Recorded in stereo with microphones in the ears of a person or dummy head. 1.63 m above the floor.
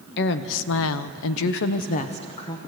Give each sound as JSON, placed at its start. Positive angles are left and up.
{"t": 0.2, "sound": "a woman speaking", "side_deg": 60, "distance_m": 1.2}